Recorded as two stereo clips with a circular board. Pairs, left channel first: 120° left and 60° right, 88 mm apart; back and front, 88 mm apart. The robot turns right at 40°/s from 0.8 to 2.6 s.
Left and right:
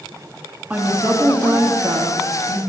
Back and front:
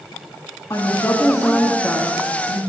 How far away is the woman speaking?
About 1.3 m.